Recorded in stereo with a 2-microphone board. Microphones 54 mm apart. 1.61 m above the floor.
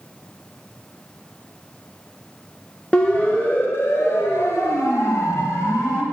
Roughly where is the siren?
Centre.